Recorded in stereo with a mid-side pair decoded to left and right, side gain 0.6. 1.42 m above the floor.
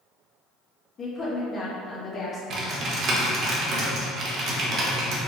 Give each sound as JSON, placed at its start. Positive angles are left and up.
{"t": 1.0, "sound": "a woman speaking", "azimuth_deg": 35, "distance_m": 1.0}
{"t": 2.5, "sound": "typing on a keyboard", "azimuth_deg": -55, "distance_m": 0.9}